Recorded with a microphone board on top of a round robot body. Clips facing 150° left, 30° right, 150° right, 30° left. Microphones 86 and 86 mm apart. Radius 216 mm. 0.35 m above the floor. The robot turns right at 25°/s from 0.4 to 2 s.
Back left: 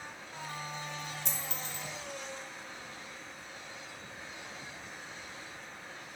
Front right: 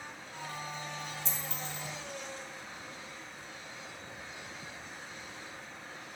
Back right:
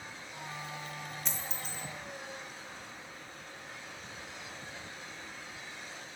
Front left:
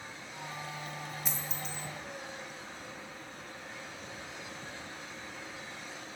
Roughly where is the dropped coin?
Behind left.